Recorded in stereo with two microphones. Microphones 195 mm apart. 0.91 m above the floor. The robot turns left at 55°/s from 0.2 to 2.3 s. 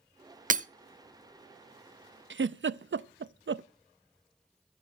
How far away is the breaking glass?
About 0.8 m.